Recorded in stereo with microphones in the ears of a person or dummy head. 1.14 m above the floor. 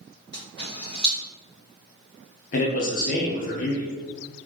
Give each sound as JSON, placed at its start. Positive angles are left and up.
{"t": 0.3, "sound": "a camera shutter", "side_deg": 20, "distance_m": 1.8}
{"t": 2.5, "sound": "a man speaking", "side_deg": 35, "distance_m": 0.7}